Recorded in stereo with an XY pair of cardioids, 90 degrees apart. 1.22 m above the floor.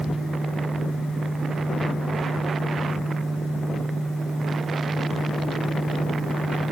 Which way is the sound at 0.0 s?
40° left.